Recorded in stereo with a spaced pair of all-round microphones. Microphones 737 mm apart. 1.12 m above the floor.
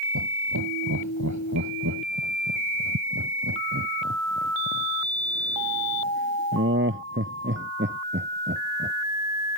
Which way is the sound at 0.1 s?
25° right (ahead or behind).